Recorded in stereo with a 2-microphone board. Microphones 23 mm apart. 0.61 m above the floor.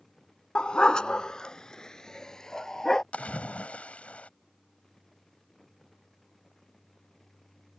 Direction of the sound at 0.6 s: 40° left (ahead or behind).